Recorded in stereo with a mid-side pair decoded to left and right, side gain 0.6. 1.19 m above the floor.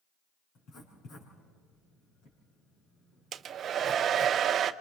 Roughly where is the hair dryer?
Ahead right.